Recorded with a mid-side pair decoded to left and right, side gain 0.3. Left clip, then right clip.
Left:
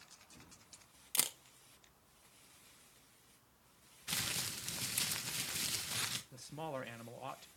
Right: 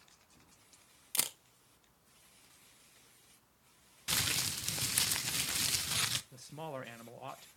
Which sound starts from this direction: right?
Crumpling, at 4.1 s.